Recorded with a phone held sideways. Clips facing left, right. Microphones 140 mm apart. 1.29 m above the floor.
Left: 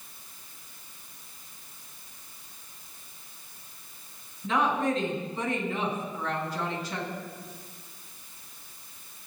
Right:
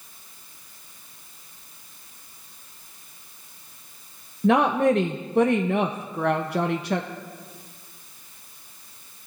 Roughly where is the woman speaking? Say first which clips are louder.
Right 8 dB; right.